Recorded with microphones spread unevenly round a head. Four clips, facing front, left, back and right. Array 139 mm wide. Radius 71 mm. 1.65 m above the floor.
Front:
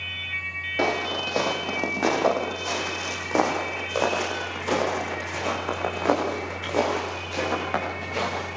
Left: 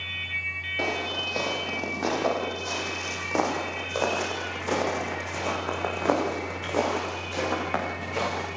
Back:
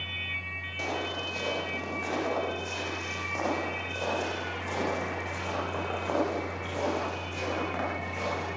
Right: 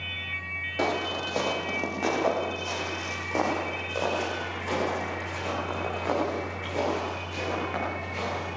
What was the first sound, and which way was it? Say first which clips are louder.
Footsteps: right 2 dB, front 8 dB; 10° right.